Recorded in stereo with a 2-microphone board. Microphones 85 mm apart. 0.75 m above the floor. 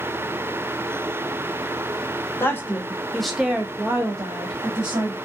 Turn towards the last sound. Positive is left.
turn(degrees=-45)  # may be behind; listen again after turning